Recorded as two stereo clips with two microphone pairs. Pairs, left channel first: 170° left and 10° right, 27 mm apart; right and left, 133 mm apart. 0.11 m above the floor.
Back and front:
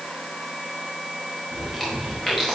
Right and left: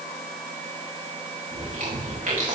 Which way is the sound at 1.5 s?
90° left.